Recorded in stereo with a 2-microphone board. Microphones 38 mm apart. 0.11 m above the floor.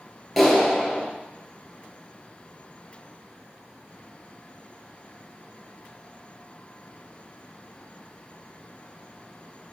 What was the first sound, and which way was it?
A clap, centre (ahead or behind).